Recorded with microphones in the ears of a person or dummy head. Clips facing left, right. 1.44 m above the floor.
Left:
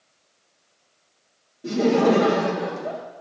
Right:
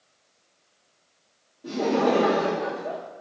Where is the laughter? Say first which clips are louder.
Left 4 dB; 30° left (ahead or behind), 1.0 m.